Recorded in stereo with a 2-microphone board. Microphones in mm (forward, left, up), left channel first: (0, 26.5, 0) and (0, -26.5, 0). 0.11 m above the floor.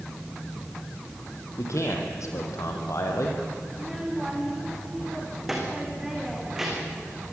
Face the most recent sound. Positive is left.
turn(degrees=-10)  # may be behind; listen again after turning